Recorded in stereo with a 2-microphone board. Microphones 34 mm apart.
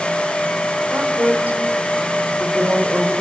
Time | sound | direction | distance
0.9 | a woman speaking | 70° right (ahead or behind) | 3.5 m